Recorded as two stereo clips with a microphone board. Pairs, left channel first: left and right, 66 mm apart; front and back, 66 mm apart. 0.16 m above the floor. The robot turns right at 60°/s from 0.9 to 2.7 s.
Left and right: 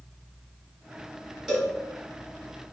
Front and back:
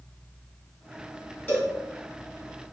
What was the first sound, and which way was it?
A cowbell, 20° right.